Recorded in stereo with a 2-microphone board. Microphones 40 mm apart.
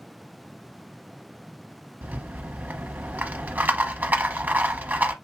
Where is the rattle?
50° right (ahead or behind), 0.8 m.